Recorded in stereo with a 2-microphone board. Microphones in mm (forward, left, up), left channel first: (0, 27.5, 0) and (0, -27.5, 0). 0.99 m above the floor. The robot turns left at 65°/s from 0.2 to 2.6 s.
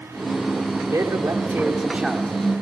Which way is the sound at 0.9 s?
95° right.